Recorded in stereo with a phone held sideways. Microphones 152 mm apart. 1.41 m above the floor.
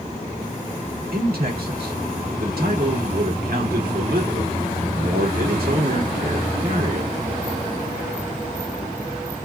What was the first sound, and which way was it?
A man speaking, 80° right.